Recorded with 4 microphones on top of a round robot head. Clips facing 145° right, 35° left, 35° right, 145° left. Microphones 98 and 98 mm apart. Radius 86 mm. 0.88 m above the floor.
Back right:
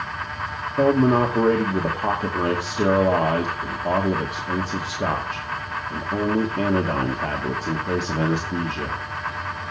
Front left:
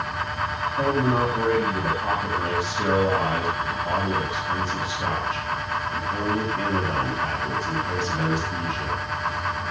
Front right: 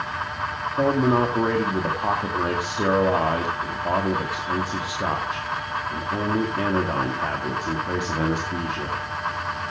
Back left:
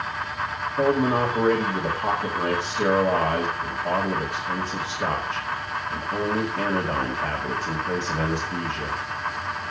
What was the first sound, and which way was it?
A man speaking, 110° right.